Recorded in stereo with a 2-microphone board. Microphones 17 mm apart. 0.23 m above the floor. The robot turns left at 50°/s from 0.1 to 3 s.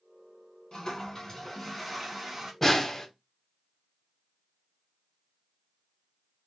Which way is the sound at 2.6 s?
15° left (ahead or behind).